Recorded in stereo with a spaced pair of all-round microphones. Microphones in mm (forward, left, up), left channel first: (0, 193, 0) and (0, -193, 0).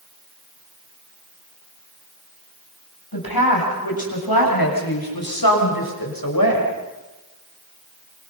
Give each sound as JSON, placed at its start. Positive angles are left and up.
{"t": 3.1, "sound": "a woman speaking", "side_deg": 80, "distance_m": 7.5}